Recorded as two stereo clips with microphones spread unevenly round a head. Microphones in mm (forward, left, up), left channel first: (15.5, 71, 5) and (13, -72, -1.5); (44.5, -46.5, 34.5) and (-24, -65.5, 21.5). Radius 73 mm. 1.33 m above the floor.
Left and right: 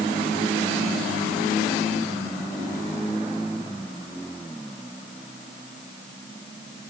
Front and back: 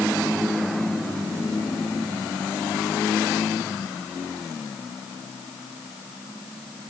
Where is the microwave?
No microwave in this recording.